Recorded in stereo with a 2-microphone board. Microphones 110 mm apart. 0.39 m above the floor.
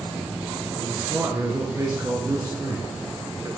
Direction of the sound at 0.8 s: 25° right (ahead or behind).